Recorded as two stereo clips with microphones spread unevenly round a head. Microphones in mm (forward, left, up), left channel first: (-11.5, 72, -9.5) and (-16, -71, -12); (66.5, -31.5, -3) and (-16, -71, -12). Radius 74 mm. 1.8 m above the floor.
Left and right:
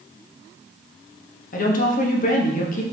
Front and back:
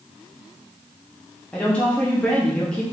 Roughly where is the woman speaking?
Left.